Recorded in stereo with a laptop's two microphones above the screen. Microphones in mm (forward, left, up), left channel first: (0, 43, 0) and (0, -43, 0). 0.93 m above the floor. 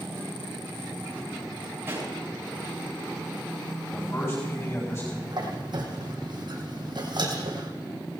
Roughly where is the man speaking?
Left.